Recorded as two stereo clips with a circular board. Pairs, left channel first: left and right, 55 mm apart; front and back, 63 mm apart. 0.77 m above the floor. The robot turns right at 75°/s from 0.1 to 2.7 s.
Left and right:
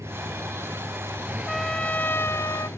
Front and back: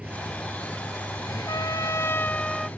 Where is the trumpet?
5° right; by 2.7 s 90° left.